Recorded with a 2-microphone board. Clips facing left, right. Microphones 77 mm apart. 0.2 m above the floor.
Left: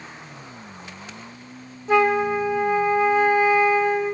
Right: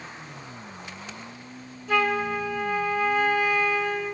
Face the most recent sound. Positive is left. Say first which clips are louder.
# left 6 dB
turn(degrees=20)  # may be behind; listen again after turning